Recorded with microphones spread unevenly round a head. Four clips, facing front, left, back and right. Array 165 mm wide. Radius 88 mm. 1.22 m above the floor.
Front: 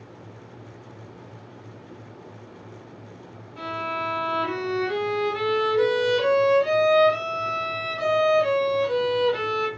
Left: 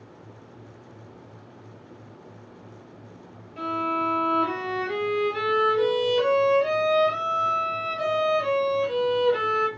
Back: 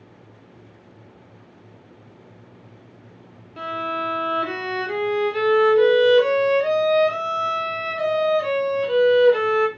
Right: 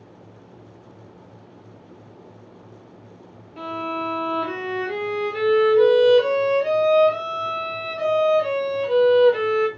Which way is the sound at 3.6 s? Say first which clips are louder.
Left 1 dB, back 3 dB; 145° right.